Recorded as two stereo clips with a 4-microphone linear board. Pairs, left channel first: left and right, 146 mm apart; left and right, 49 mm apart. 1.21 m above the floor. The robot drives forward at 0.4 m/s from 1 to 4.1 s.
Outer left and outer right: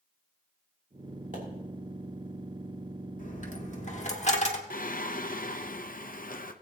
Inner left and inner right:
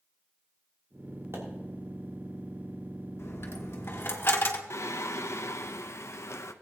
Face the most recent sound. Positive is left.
turn(degrees=70)  # may be behind; listen again after turning